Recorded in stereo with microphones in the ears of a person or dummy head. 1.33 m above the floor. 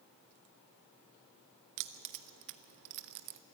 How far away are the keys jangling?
About 0.5 m.